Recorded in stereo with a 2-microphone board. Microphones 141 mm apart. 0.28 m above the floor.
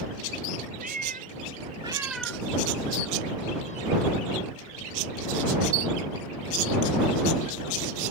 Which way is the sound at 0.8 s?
85° right.